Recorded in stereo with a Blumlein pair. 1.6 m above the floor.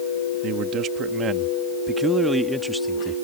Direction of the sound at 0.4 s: 35° right.